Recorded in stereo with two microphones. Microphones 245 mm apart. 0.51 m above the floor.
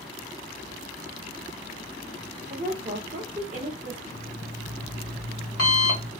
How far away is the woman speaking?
About 1.2 m.